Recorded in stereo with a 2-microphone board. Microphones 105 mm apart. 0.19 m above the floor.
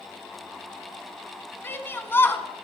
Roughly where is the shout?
Left.